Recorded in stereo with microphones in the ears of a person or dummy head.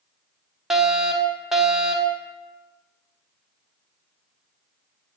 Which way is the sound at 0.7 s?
5° right (ahead or behind).